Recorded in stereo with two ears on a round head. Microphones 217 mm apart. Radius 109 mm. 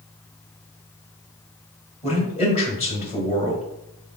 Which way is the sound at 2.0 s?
30° left (ahead or behind).